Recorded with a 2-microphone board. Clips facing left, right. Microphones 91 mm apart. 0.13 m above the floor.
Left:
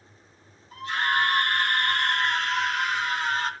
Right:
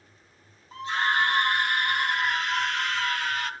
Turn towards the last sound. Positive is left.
turn(degrees=30)  # may be behind; listen again after turning